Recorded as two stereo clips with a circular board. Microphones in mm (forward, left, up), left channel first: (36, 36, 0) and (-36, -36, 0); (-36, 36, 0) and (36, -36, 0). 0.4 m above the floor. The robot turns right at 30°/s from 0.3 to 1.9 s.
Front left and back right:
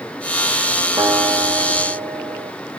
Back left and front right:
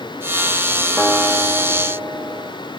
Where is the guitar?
135° right, 1.5 m; by 2.5 s 110° right, 1.5 m.